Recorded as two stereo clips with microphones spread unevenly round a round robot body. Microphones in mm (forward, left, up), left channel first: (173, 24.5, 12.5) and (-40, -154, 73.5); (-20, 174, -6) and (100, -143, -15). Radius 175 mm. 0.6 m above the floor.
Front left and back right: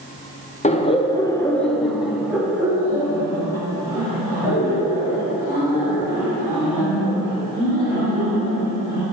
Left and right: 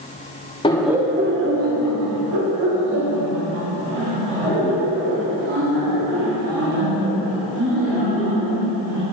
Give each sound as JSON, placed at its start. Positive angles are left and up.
{"t": 0.6, "sound": "laughter", "azimuth_deg": 45, "distance_m": 0.7}